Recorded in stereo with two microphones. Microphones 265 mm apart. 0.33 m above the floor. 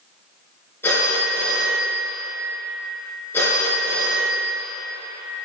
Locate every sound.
0.8 s a phone ringing: 10° left (ahead or behind), 3 m